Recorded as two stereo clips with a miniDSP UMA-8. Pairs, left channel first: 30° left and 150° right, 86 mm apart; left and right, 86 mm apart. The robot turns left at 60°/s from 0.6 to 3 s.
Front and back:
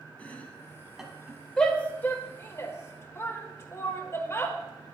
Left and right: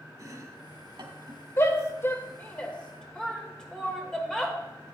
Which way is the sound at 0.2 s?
45° right.